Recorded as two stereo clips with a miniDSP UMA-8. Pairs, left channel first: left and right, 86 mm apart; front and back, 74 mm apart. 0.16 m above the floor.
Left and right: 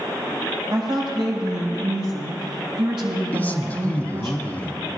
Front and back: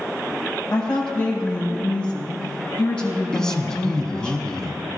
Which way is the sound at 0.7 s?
80° right.